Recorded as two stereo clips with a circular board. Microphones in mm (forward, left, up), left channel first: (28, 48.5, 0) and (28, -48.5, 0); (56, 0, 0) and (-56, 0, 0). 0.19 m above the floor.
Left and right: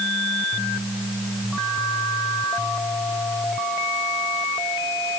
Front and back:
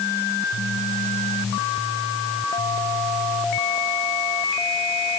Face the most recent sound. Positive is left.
No sound to turn to.